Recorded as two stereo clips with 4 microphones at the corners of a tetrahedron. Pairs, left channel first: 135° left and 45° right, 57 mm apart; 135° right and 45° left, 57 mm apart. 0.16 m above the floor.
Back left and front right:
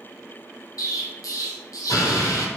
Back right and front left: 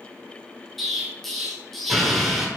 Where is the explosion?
135° left, 0.8 m.